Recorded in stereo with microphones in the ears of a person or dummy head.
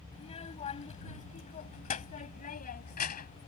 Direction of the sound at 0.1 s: 30° left (ahead or behind).